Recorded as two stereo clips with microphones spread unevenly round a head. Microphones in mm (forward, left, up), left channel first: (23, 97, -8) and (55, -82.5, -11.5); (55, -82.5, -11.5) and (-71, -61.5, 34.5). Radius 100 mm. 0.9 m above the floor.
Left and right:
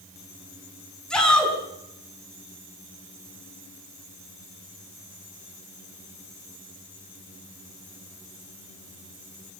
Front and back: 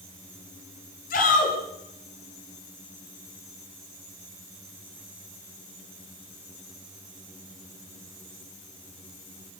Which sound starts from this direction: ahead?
A shout, at 1.1 s.